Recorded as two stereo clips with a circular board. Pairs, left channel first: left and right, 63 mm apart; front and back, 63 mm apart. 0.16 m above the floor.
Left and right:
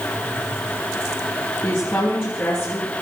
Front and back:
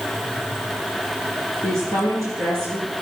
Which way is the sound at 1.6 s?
140° left.